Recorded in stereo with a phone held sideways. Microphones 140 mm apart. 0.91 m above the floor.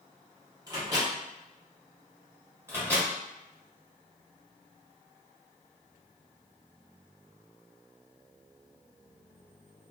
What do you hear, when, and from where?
0.7 s a microwave: 25° right (ahead or behind), 1.2 m
2.7 s a microwave: 15° right (ahead or behind), 1.3 m